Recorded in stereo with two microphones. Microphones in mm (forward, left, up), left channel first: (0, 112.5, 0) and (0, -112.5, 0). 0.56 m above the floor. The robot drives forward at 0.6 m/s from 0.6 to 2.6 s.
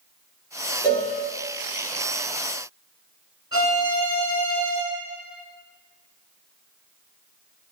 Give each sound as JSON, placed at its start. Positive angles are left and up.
{"t": 0.8, "sound": "a cowbell", "side_deg": 20, "distance_m": 1.9}
{"t": 3.5, "sound": "a violin", "side_deg": 70, "distance_m": 1.6}